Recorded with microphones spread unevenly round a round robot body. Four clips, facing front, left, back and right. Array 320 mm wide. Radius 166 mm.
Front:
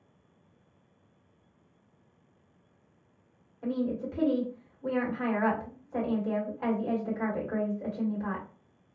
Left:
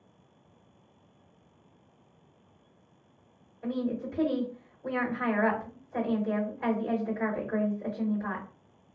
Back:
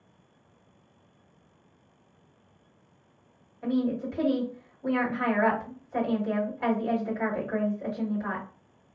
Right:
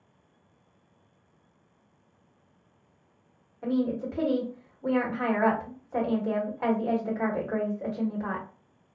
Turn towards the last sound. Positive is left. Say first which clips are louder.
# right 4 dB, back 4 dB
turn(degrees=-95)